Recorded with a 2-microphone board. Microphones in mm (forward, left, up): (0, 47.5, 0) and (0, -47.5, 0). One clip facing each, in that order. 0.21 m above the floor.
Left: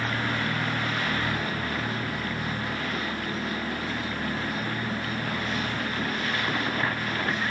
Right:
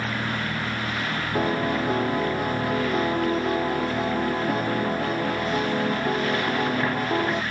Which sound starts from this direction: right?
A piano, at 1.4 s.